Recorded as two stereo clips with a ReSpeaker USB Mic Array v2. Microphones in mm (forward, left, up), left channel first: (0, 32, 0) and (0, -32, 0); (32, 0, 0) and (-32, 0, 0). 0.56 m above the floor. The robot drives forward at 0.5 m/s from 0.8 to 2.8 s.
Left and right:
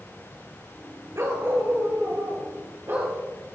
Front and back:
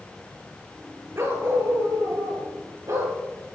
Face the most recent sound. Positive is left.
turn(degrees=-140)